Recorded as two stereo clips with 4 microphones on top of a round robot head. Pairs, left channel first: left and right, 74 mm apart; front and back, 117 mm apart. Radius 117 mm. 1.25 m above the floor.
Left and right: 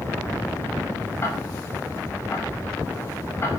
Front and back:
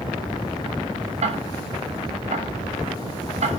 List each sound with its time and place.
1.2 s ticking: 155° left, 3.5 m